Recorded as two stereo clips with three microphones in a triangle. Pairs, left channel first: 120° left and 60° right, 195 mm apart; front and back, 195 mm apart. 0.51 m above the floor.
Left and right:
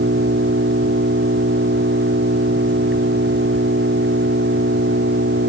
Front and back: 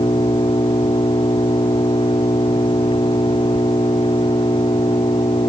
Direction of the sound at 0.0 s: 65° right.